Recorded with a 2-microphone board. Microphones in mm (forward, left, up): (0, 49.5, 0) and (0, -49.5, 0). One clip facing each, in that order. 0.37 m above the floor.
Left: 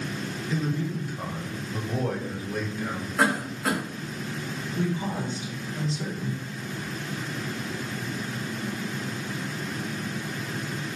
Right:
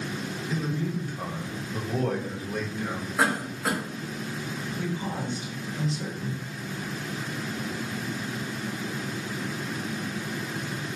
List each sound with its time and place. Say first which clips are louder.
0.5 s a man speaking: left 1 dB; 5° left (ahead or behind), 1.3 m
3.2 s a cough: left 2 dB; 5° right (ahead or behind), 2.0 m
4.8 s a woman speaking: left 4 dB; 30° left (ahead or behind), 1.5 m